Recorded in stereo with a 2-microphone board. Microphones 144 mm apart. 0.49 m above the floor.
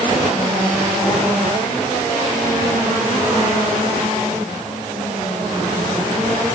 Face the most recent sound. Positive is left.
No sound to turn to.